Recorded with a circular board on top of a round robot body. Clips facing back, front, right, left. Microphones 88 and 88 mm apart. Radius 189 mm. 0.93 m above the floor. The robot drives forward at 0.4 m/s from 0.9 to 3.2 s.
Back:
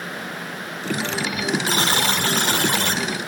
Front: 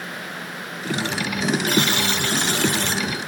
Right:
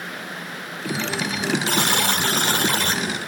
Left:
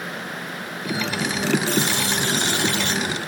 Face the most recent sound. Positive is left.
turn(degrees=-145)